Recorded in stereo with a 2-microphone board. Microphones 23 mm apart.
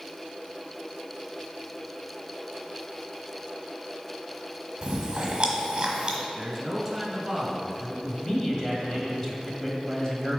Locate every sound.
4.8 s chewing: 30° right (ahead or behind), 1.3 m
6.4 s a man speaking: 15° right (ahead or behind), 1.4 m
8.0 s a man speaking: 25° left (ahead or behind), 1.2 m